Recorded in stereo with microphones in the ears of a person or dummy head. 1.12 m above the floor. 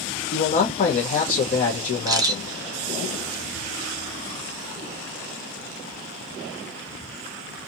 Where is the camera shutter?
10° right (ahead or behind), 0.6 m.